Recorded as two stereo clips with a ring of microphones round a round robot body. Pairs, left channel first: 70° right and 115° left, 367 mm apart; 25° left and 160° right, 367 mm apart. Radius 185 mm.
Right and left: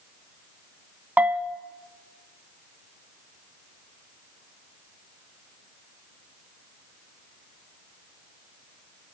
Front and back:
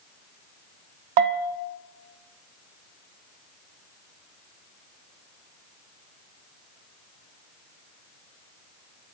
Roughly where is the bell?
Behind.